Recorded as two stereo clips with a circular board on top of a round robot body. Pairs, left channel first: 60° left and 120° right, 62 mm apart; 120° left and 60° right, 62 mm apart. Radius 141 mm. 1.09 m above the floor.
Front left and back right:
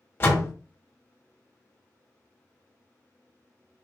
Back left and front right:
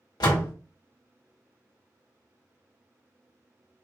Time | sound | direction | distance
0.2 | a door slam | 115° left | 1.1 m